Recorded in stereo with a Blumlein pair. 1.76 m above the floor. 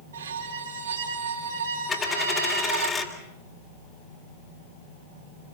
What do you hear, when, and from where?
0.1 s a violin: 65° right, 4 m
1.9 s a dropped coin: 15° left, 3.5 m